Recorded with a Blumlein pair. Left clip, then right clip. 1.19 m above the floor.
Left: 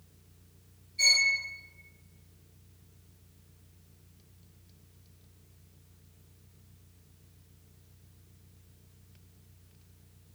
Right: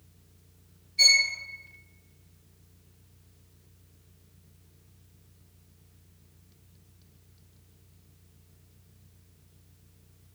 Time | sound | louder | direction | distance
1.0 | a violin | right 4 dB | 25° right | 0.8 m